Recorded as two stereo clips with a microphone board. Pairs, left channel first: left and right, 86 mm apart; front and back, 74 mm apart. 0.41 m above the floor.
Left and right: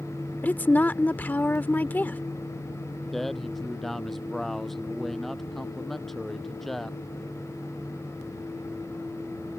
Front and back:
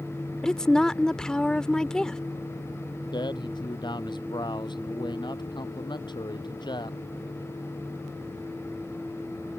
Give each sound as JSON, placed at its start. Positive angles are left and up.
{"t": 0.4, "sound": "a woman speaking", "azimuth_deg": 65}
{"t": 3.1, "sound": "a man speaking", "azimuth_deg": 5}